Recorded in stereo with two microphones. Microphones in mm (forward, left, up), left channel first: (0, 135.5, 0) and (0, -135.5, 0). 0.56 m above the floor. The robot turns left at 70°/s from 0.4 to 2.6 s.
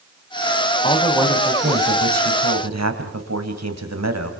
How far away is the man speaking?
About 3 m.